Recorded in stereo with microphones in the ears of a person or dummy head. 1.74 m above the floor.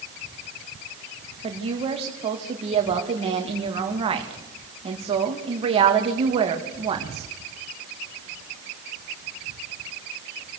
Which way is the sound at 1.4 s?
30° right (ahead or behind).